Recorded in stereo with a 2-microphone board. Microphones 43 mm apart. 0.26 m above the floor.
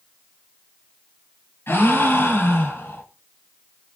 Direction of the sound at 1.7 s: 70° left (ahead or behind).